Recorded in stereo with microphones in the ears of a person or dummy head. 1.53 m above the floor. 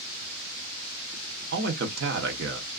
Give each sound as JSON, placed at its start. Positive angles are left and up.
{"t": 1.5, "sound": "a man speaking", "side_deg": -70, "distance_m": 1.1}